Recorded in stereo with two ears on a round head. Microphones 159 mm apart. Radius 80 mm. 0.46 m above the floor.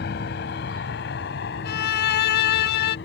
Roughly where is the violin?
Left.